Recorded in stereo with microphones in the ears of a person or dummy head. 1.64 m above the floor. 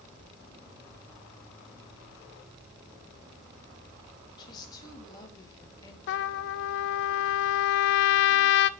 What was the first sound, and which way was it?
A woman speaking, 25° left (ahead or behind).